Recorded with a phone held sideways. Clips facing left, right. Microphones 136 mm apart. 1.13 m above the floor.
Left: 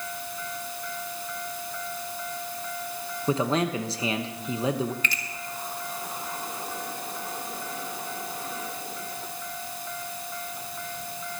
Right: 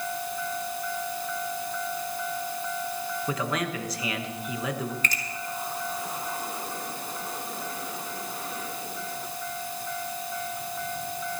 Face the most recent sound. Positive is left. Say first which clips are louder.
# right 1 dB
turn(degrees=-40)  # may be behind; listen again after turning